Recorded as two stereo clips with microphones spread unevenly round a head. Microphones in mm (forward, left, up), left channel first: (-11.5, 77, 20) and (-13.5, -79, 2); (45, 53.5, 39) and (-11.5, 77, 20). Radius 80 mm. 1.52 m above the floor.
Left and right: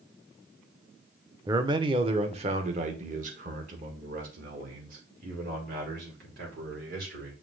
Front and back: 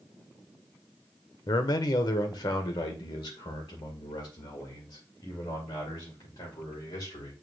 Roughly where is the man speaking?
Ahead.